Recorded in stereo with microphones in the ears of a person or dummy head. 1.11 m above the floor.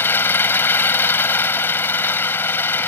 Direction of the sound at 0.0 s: 15° left (ahead or behind).